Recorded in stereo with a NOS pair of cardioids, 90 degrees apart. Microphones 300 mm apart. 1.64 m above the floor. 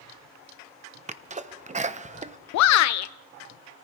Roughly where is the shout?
Ahead left.